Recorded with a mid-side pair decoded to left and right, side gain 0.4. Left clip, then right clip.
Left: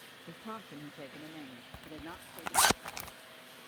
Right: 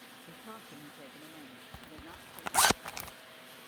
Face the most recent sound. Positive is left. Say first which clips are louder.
# left 5 dB
turn(degrees=-5)